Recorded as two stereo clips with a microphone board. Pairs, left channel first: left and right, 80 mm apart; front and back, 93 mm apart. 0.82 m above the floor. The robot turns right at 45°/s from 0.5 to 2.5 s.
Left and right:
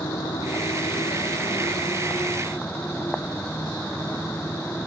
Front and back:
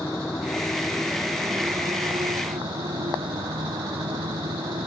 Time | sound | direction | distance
0.0 | a motorcycle | 65° left | ?